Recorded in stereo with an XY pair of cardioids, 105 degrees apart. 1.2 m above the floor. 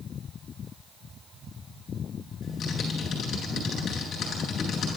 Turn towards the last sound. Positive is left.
turn(degrees=65)